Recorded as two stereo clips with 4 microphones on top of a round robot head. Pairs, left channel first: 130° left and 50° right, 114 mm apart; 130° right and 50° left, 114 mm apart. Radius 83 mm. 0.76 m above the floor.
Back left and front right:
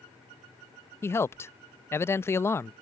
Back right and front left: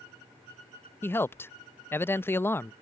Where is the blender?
I don't hear a blender.